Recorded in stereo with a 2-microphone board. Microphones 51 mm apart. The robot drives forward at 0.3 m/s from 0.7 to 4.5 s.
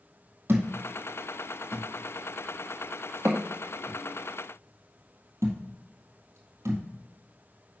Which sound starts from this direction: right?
A thud, at 0.5 s.